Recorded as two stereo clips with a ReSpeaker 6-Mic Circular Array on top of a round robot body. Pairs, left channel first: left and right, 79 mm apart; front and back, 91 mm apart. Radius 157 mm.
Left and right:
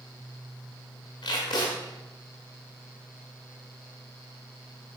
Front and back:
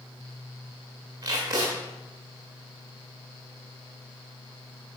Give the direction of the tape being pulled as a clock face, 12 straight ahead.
8 o'clock.